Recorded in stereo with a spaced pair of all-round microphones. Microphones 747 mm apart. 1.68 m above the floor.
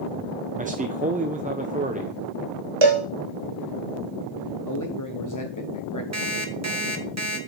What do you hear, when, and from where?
0.6 s a man speaking: 10° right (ahead or behind), 0.6 m
2.8 s a cowbell: 40° right (ahead or behind), 1.5 m
4.7 s a man speaking: 25° left (ahead or behind), 1.0 m
6.1 s an alarm clock: 20° right (ahead or behind), 1.3 m